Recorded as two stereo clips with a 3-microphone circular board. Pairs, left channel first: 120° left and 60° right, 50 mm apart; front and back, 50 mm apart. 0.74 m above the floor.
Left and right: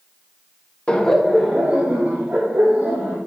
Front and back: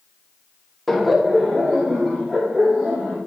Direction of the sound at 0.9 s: 80° left.